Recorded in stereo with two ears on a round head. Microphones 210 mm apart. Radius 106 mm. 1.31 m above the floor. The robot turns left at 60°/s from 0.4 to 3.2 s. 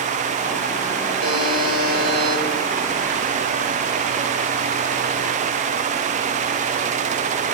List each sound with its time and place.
1.2 s a buzzer: 95° right, 7 m; by 2.4 s 170° right, 7 m